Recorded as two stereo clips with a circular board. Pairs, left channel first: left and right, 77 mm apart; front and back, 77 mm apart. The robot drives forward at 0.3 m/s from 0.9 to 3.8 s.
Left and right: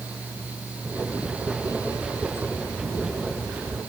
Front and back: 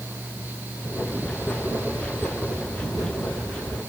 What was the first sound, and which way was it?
Only background noise.